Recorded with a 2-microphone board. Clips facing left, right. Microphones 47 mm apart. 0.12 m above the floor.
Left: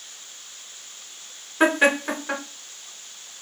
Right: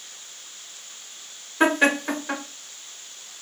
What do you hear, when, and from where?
1.6 s laughter: 10° left (ahead or behind), 1.2 m